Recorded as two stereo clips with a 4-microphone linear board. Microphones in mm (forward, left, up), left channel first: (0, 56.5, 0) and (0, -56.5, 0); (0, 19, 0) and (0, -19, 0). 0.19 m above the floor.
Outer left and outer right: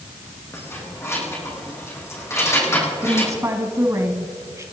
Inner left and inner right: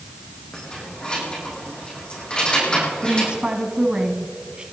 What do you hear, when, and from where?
0.5 s keys jangling: 25° left (ahead or behind), 6.5 m
3.0 s a woman speaking: 25° right (ahead or behind), 1.5 m